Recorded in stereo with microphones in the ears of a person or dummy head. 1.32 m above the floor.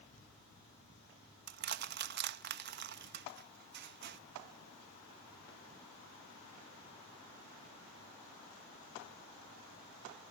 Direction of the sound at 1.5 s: 50° right (ahead or behind).